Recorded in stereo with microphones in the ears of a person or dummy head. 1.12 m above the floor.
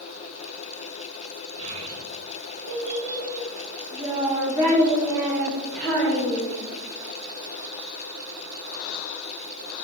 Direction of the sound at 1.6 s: 75° right (ahead or behind).